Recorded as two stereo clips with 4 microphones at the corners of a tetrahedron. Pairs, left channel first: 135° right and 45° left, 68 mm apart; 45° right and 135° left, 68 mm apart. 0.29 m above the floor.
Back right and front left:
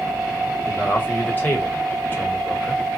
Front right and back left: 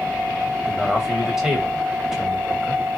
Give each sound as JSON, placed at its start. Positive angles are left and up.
{"t": 0.7, "sound": "a man speaking", "azimuth_deg": -150, "distance_m": 1.1}